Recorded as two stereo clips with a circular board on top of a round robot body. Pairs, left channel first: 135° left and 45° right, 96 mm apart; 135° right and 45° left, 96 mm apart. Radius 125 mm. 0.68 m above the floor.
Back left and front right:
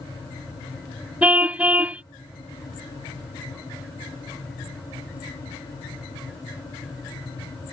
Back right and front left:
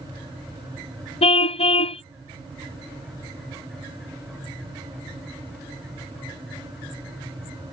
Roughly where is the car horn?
Behind right.